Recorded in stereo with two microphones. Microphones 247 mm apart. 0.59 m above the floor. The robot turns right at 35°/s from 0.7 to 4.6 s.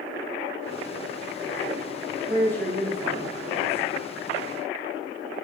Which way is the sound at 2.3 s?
160° left.